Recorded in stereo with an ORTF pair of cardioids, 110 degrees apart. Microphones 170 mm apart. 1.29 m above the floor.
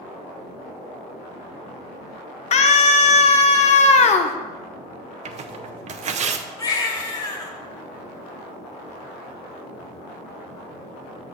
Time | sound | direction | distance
2.5 | a scream | 45° left | 1.0 m
5.2 | tearing paper | 45° right | 0.6 m
6.6 | a baby crying | 20° left | 1.2 m